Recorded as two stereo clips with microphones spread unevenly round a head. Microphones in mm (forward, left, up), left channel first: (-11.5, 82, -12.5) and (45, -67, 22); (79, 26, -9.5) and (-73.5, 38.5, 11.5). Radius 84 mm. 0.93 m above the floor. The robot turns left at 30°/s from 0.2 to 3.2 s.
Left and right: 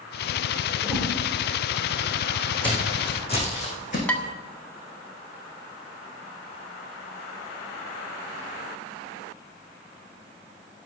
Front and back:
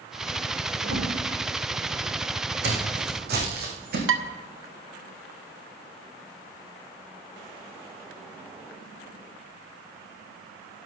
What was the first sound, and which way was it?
A whoosh, 170° right.